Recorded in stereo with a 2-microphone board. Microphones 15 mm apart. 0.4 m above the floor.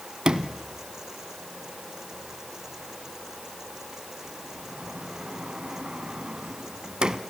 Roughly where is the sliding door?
Right.